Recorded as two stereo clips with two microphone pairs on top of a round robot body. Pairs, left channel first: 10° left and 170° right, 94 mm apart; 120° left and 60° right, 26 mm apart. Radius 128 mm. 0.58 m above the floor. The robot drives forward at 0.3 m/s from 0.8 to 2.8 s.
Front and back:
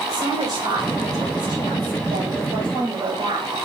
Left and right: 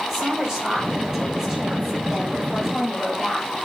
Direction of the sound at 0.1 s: 125° right.